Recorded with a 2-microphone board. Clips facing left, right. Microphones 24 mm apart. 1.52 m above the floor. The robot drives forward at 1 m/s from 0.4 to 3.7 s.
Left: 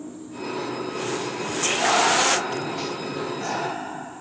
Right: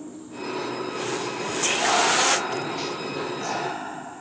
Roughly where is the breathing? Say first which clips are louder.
Left 2 dB; left.